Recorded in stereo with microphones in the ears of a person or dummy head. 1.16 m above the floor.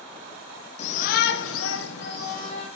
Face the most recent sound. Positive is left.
turn(degrees=45)  # may be behind; listen again after turning